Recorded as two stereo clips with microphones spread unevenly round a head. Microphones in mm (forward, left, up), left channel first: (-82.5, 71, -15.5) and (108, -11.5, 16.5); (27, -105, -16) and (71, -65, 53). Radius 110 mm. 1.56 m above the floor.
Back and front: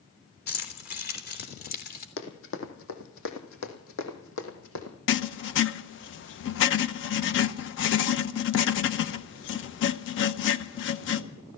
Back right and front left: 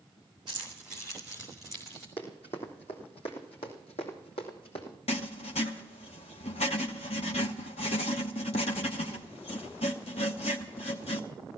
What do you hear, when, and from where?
0.5 s keys jangling: 115° left, 3.5 m; by 2.1 s 110° left, 2.5 m
2.2 s running footsteps: 140° left, 2.5 m; by 5.0 s 170° right, 3 m
5.1 s writing: 170° left, 0.8 m